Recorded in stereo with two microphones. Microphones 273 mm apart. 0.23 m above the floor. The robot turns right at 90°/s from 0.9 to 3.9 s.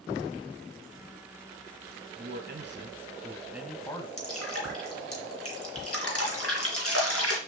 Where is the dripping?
60° left (ahead or behind), 3 m.